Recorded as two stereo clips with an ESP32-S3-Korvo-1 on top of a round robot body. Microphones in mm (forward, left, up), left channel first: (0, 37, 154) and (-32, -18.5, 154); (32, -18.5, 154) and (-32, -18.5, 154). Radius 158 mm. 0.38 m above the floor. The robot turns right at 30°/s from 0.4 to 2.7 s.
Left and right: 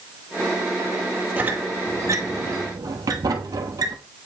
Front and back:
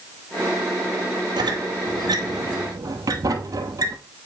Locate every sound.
1.4 s a squeak: 170° left, 1.1 m; by 4.0 s 150° right, 1.1 m